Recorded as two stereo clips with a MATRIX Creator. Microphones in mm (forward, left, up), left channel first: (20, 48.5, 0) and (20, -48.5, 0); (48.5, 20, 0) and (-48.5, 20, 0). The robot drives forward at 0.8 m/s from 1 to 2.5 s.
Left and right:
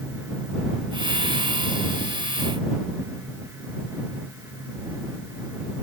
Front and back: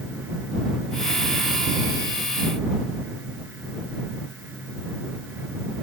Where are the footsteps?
No footsteps in this recording.